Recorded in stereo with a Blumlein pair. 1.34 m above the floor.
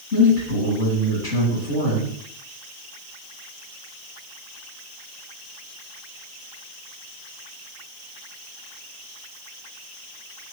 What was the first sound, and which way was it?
A man speaking, 50° left.